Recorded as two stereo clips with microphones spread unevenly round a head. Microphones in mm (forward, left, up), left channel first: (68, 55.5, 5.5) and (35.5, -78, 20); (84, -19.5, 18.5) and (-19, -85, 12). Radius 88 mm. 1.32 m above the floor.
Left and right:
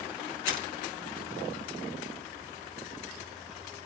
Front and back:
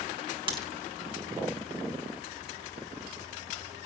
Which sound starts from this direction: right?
A crack, at 0.5 s.